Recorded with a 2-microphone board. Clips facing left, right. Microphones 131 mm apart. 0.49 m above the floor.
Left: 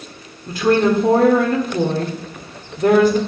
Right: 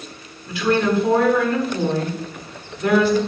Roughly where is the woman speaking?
Left.